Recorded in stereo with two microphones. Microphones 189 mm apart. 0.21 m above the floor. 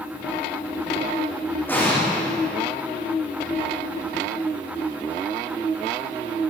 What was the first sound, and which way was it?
An explosion, 10° left (ahead or behind).